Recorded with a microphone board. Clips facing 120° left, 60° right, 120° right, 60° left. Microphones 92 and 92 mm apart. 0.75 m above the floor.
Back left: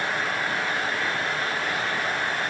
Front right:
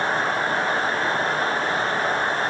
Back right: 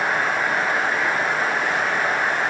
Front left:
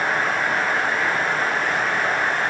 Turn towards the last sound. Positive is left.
No sound to turn to.